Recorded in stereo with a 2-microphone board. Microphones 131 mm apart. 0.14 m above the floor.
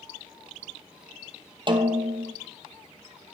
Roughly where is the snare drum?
Right.